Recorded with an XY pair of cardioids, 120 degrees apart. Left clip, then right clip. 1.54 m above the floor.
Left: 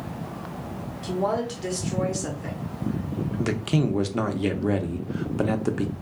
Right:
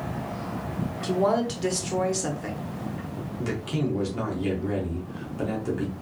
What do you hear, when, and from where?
1.0 s a woman speaking: 20° right, 0.9 m
3.4 s a man speaking: 50° left, 0.7 m